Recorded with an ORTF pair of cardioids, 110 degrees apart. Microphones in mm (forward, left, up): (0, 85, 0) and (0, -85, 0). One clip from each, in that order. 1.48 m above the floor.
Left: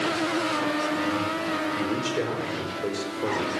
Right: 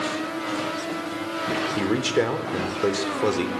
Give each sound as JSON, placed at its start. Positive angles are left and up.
{"t": 1.8, "sound": "a man speaking", "azimuth_deg": -40, "distance_m": 4.0}